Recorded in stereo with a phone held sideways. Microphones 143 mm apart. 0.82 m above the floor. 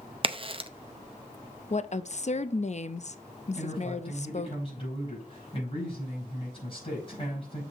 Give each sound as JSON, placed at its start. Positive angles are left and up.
{"t": 0.2, "sound": "a crack", "side_deg": -40, "distance_m": 0.6}
{"t": 1.7, "sound": "a woman speaking", "side_deg": 50, "distance_m": 0.5}
{"t": 3.5, "sound": "a man speaking", "side_deg": 40, "distance_m": 5.5}